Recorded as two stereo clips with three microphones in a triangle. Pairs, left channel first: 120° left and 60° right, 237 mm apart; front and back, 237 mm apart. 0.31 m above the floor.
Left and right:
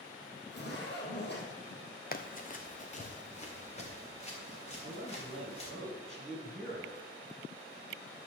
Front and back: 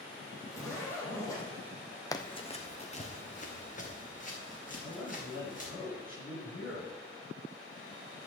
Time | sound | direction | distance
0.5 | a zipper | 75° left | 3 m
2.1 | running footsteps | 75° left | 0.7 m
4.8 | a man speaking | 35° left | 5 m